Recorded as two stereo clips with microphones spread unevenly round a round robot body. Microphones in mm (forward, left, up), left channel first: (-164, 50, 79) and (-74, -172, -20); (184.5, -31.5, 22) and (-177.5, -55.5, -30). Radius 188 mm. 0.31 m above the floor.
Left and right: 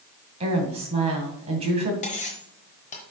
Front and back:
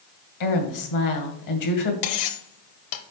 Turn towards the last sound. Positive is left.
turn(degrees=35)